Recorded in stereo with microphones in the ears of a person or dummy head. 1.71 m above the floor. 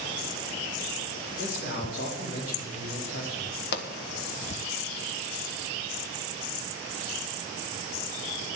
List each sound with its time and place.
1.4 s a man speaking: 55° left (ahead or behind), 4 m
3.7 s a pop: 65° left (ahead or behind), 1.6 m